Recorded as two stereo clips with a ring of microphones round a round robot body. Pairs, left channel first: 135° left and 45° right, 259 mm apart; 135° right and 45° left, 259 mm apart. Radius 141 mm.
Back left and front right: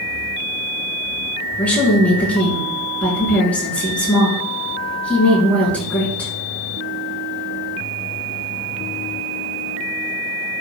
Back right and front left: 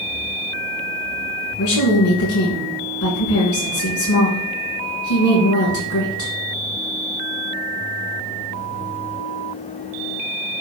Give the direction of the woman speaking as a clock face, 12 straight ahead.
5 o'clock.